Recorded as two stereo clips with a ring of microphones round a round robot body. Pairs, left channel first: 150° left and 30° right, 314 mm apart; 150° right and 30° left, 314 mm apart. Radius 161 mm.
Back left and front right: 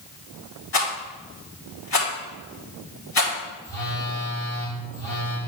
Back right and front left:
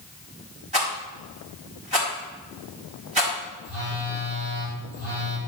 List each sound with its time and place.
0.7 s a rattle: 100° left, 4 m
3.6 s a phone buzzing: 70° left, 4 m